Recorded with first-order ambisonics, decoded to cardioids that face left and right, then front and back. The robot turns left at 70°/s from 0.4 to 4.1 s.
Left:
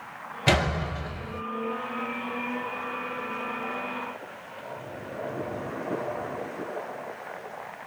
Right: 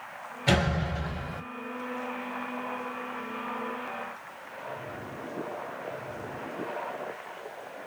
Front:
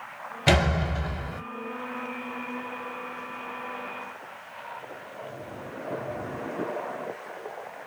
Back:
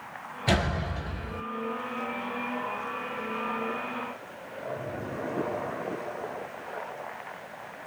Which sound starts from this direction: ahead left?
A door slam, at 0.5 s.